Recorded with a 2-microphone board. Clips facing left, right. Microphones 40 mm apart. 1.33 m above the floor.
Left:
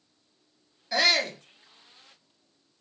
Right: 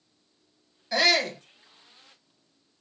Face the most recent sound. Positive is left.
turn(degrees=5)  # may be behind; listen again after turning